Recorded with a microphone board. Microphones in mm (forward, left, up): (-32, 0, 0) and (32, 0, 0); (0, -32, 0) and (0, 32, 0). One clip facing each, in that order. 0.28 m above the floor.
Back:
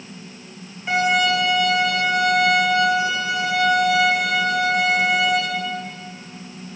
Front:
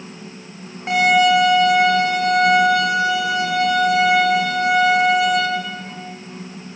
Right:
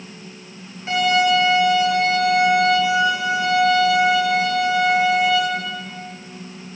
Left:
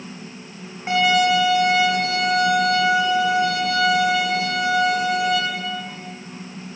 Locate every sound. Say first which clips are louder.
0.9 s a violin: front 5 dB, even; 30° left, 9.5 m